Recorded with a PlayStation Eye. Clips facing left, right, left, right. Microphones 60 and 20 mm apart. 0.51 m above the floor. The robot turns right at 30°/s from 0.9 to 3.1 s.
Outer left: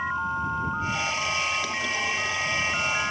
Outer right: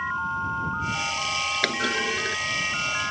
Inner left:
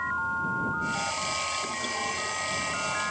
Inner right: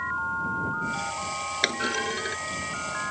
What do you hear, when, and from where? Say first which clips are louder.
1.6 s a clunk: outer right 3 dB, inner right 4 dB; 80° right; by 2.4 s 65° right (ahead or behind)